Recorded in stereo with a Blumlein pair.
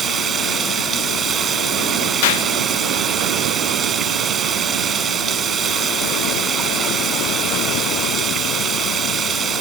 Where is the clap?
55° left.